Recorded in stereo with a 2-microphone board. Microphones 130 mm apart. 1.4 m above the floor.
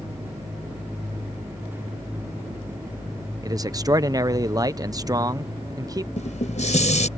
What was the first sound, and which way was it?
A man speaking, 30° right (ahead or behind).